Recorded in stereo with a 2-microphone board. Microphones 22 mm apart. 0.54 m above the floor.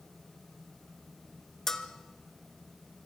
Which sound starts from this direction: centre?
A bell, at 1.7 s.